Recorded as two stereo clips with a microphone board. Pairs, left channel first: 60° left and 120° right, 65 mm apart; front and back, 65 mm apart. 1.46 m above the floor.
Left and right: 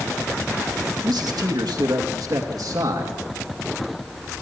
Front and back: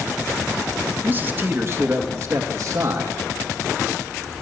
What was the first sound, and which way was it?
A man speaking, 115° right.